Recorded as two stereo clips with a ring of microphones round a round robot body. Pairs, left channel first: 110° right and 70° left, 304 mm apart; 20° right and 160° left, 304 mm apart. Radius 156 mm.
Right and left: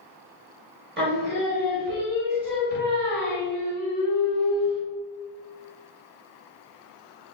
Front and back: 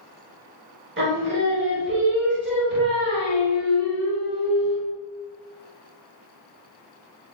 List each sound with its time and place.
1.0 s singing: 115° left, 0.9 m